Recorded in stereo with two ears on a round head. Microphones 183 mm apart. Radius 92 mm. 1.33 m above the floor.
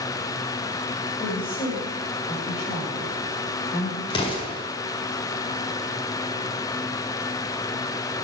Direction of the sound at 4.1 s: 25° left (ahead or behind).